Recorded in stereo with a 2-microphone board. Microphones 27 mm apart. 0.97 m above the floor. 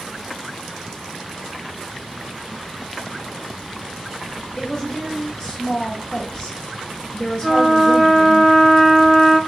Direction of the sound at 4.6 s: 30° left (ahead or behind).